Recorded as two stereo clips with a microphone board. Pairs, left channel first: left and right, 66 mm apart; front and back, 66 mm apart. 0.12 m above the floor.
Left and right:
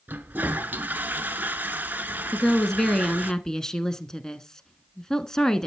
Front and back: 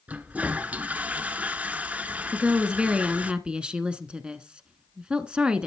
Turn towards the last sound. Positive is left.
turn(degrees=150)